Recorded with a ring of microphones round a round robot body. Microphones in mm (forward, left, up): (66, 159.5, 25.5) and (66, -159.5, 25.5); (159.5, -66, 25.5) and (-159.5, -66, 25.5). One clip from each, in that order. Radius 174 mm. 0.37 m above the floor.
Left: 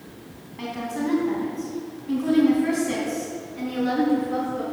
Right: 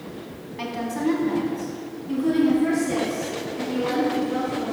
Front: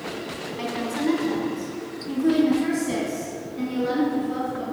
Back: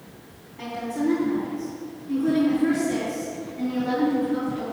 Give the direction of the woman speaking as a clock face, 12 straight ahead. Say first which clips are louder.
Right 2 dB, even; 1 o'clock.